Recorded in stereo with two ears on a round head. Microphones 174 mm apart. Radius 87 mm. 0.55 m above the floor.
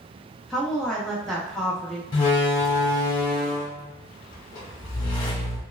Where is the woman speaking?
5° left (ahead or behind), 0.6 m.